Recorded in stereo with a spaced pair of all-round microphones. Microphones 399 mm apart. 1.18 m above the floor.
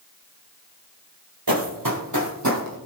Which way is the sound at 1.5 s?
55° right (ahead or behind).